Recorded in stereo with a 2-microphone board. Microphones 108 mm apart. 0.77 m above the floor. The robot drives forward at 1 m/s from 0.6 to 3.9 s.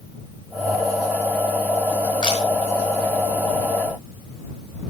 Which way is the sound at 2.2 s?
45° left (ahead or behind).